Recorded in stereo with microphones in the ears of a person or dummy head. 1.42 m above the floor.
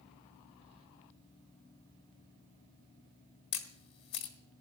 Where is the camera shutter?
30° left (ahead or behind), 1.4 m.